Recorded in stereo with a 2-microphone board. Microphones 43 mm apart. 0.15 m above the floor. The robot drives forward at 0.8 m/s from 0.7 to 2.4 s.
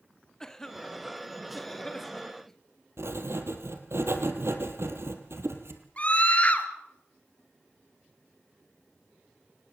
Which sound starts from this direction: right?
Writing, at 3.0 s.